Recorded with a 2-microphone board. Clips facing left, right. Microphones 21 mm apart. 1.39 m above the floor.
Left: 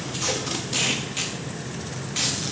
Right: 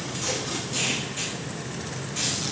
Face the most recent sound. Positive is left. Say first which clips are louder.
# left 3 dB
turn(degrees=40)  # may be behind; listen again after turning